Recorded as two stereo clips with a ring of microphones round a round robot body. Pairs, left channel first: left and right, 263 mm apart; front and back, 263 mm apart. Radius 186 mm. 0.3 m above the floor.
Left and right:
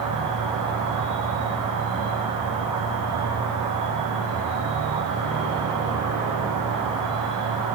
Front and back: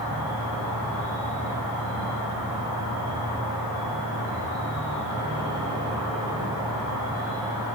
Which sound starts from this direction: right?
An insect, at 0.0 s.